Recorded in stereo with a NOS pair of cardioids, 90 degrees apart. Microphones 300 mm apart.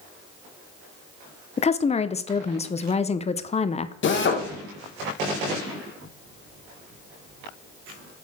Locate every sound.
1.6 s a woman speaking: 20° left, 0.5 m
4.0 s a drill: 40° left, 1.1 m